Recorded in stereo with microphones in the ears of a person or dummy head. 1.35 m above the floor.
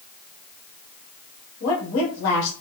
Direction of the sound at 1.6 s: 70° left (ahead or behind).